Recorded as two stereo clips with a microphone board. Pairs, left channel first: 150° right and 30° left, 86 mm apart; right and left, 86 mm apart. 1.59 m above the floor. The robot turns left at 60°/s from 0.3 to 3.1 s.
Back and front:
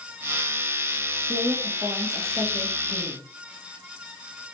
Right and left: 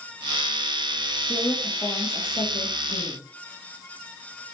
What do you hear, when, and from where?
1.3 s a woman speaking: straight ahead, 2.5 m; by 3.2 s 105° right, 2.5 m